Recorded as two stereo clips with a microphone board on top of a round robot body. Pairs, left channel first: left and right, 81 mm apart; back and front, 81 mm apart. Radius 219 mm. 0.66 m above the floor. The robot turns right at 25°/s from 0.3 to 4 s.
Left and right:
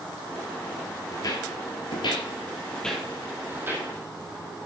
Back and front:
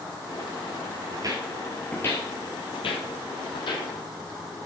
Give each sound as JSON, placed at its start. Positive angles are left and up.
{"t": 1.1, "sound": "footsteps", "azimuth_deg": 35, "distance_m": 1.0}